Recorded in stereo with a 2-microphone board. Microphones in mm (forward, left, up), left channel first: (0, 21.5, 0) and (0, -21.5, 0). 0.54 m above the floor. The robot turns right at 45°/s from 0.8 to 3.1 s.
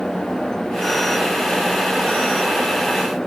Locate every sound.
Only background noise.